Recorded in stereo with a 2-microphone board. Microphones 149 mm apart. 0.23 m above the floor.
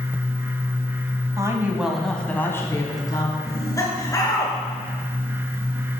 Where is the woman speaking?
25° right (ahead or behind), 1.1 m; by 3.4 s 30° left (ahead or behind), 1.8 m.